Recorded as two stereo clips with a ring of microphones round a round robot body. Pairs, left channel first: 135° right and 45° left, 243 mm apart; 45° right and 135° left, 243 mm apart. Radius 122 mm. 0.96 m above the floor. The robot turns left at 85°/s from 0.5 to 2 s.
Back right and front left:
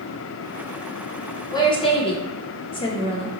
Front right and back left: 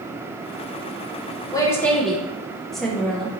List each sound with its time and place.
1.5 s a woman speaking: 90° right, 0.5 m; by 3.3 s 130° right, 0.5 m